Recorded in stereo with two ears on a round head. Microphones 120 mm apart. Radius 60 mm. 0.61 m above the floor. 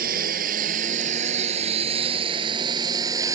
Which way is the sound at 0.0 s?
70° right (ahead or behind).